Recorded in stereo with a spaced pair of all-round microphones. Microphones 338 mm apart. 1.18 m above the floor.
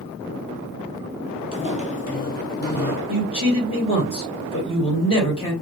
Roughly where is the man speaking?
Centre.